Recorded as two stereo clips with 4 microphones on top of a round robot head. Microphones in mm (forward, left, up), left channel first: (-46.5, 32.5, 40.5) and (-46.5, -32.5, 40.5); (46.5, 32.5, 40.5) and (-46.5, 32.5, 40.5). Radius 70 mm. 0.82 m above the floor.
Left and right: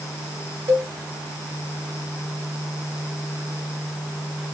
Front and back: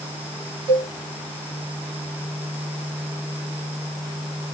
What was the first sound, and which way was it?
A cowbell, 135° right.